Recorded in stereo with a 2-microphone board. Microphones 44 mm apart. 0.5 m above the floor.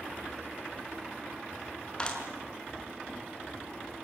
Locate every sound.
2.0 s a clap: 25° left (ahead or behind), 5 m